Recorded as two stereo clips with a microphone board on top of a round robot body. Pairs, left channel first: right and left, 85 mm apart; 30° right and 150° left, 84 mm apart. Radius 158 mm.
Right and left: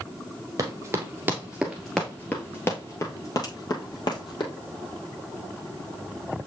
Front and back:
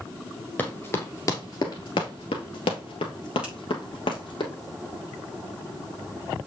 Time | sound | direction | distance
0.6 | running footsteps | 40° left | 1.6 m
3.4 | a finger snap | 130° right | 5 m